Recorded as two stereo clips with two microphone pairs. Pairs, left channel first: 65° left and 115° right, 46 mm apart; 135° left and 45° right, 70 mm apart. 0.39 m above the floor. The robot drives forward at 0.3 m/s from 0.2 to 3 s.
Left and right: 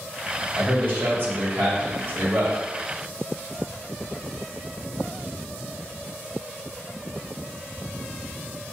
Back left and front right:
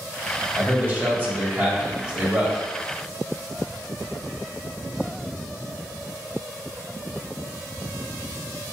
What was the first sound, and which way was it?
A man speaking, 85° right.